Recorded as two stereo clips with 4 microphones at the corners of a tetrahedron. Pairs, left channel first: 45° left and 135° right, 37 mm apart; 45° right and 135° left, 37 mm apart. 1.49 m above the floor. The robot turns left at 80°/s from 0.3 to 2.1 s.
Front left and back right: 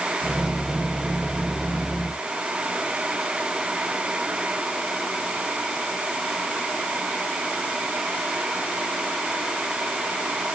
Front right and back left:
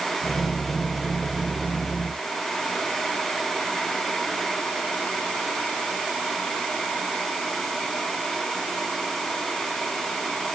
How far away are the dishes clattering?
I don't hear dishes clattering.